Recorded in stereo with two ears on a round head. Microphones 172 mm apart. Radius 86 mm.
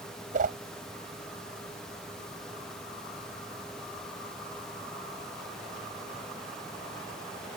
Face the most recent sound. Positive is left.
turn(degrees=-40)  # may be behind; listen again after turning